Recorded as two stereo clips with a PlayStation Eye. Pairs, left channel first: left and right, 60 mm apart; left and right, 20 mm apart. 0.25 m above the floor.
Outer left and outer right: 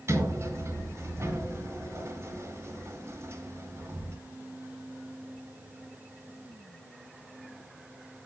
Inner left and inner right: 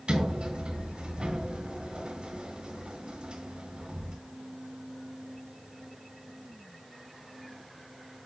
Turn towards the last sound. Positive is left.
turn(degrees=-50)  # may be behind; listen again after turning